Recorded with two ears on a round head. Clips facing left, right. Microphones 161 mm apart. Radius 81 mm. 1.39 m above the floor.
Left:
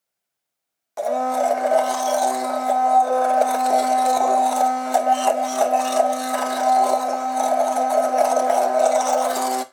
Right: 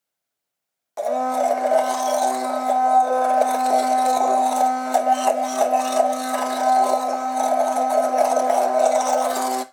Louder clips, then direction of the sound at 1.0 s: Even; centre (ahead or behind).